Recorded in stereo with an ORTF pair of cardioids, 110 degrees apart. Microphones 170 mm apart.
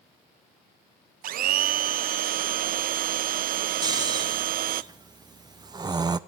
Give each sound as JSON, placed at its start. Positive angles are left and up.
{"t": 1.2, "sound": "a blender", "azimuth_deg": -60, "distance_m": 0.6}
{"t": 3.8, "sound": "snoring", "azimuth_deg": -25, "distance_m": 0.8}